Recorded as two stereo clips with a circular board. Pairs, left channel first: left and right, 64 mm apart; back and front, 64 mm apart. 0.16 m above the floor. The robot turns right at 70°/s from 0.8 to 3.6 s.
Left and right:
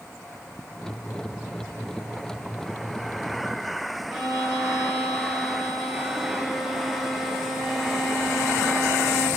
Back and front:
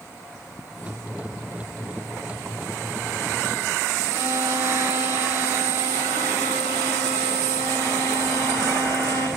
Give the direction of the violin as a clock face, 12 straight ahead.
6 o'clock.